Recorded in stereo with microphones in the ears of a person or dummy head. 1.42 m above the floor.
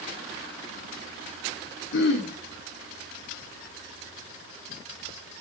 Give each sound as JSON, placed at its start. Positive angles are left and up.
{"t": 1.9, "sound": "throat clearing", "side_deg": 65, "distance_m": 4.0}